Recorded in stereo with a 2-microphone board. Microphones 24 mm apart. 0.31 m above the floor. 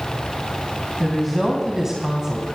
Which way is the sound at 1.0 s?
Centre (ahead or behind).